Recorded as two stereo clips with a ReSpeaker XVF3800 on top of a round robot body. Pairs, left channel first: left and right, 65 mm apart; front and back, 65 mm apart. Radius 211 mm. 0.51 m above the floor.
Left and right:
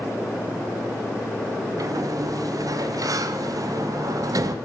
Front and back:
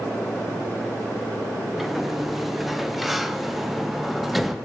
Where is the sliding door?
90° right, 0.8 m.